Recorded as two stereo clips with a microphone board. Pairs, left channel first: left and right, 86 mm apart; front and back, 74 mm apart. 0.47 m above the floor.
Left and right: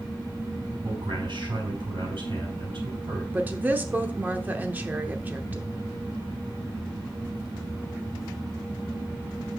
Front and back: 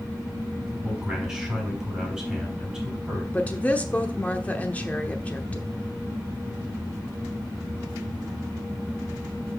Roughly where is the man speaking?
Right.